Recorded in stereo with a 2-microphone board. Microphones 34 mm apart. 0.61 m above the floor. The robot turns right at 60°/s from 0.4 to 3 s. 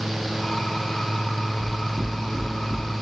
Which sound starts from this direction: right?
Knocking, at 1.6 s.